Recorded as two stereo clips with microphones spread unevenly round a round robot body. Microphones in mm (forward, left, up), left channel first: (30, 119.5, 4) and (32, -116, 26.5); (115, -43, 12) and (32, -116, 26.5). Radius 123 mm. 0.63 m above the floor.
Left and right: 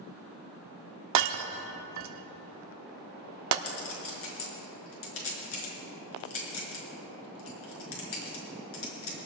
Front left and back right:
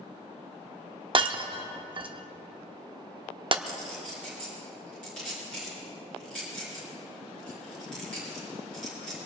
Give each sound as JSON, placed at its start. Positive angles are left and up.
{"t": 1.1, "sound": "breaking glass", "azimuth_deg": -95, "distance_m": 0.9}
{"t": 3.6, "sound": "a clink", "azimuth_deg": 130, "distance_m": 5.0}